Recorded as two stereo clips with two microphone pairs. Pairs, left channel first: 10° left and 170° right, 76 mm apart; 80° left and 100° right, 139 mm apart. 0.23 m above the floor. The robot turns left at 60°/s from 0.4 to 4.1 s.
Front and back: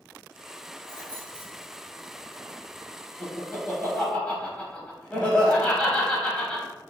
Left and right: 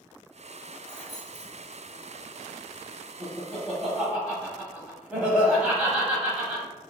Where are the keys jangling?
5° left, 1.3 m; by 1.8 s 50° right, 1.3 m.